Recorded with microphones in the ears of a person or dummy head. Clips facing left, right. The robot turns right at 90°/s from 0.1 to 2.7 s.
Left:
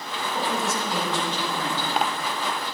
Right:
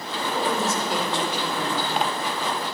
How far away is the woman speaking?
About 3 m.